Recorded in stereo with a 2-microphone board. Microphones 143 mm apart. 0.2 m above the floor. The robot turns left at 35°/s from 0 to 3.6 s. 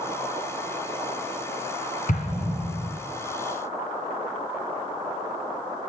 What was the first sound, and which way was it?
An explosion, 70° left (ahead or behind).